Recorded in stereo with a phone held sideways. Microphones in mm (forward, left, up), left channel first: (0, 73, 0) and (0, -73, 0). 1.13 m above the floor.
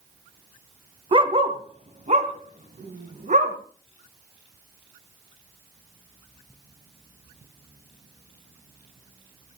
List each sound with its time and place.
1.1 s a dog barking: 35° right (ahead or behind), 1.3 m; by 3.5 s 60° right (ahead or behind), 2.5 m